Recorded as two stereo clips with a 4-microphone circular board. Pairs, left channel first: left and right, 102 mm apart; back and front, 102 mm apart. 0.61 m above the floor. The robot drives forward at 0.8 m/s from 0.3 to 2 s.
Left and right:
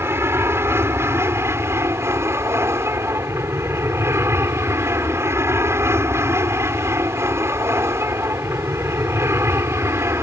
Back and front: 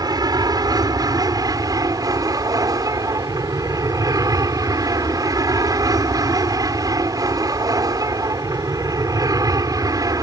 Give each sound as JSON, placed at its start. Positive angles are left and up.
{"t": 0.0, "sound": "an aircraft", "azimuth_deg": -30}